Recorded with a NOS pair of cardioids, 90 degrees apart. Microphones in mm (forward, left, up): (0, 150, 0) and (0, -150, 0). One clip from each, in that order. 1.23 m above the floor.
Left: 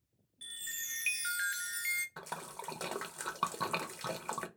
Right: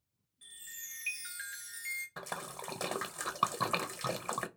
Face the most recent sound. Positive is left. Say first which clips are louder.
# right 2 dB
turn(degrees=-10)